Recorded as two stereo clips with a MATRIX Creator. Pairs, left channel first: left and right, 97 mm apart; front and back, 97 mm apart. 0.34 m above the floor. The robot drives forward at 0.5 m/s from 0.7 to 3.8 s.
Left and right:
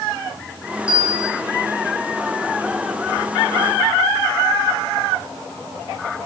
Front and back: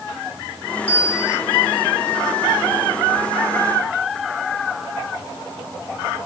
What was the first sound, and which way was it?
A bell, 10° right.